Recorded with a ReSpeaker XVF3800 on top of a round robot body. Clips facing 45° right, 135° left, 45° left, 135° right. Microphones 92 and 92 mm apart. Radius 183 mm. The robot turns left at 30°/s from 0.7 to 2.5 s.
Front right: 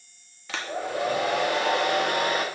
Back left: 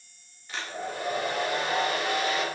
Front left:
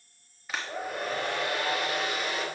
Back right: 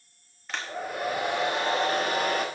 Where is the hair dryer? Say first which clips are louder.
Front right 5 dB, back right 1 dB; 40° right, 1.2 m; by 2.5 s 95° right, 1.2 m.